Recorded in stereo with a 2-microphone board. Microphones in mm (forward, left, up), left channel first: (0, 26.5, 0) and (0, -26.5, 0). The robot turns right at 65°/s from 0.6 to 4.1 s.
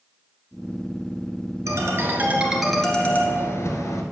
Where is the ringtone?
70° right, 1.7 m; by 4.0 s 85° left, 1.7 m.